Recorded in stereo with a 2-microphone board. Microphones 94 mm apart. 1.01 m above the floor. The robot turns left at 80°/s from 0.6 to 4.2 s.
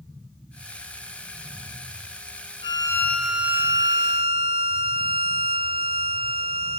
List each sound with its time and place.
2.6 s a violin: 55° left, 1.7 m; by 6.8 s 75° right, 1.7 m